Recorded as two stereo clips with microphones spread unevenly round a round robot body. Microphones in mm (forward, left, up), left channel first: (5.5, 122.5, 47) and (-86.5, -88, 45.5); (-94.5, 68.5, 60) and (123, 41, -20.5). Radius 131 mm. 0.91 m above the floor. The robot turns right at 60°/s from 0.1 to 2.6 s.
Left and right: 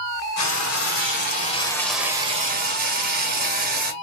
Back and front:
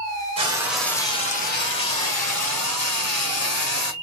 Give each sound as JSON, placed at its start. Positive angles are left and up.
{"t": 0.4, "sound": "frying", "azimuth_deg": 60, "distance_m": 1.7}